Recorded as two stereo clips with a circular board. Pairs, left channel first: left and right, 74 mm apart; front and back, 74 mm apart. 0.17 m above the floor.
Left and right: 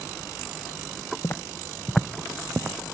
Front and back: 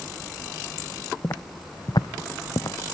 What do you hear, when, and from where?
1.2 s footsteps: 45° left, 0.7 m; by 2.8 s 35° right, 0.9 m